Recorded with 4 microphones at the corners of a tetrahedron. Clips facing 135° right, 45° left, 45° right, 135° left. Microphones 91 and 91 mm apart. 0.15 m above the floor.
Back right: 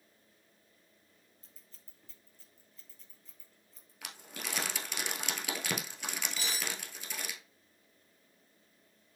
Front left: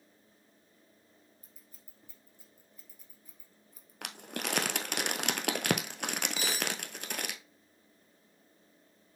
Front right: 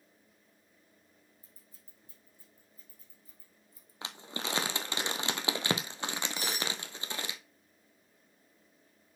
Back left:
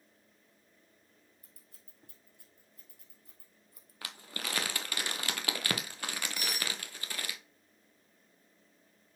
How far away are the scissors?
About 1.7 m.